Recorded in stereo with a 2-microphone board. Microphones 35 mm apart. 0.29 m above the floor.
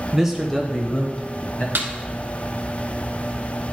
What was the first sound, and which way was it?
A man speaking, 15° right (ahead or behind).